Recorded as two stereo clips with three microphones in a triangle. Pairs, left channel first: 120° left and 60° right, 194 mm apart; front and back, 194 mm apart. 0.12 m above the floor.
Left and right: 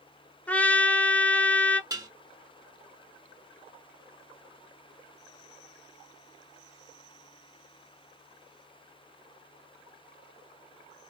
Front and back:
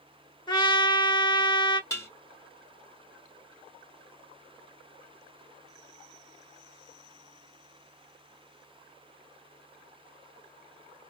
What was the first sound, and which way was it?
A trumpet, 45° left.